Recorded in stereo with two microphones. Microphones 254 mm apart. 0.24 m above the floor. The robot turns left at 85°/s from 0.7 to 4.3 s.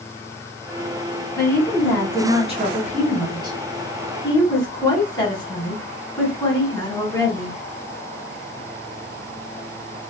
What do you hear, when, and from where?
1.4 s a woman speaking: 15° left (ahead or behind), 1.5 m